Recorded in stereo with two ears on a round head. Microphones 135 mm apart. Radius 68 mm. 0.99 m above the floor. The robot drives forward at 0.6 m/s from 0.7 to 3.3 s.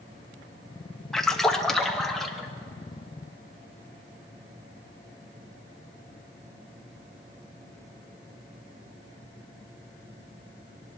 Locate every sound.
1.1 s a splash: 5° left (ahead or behind), 1.1 m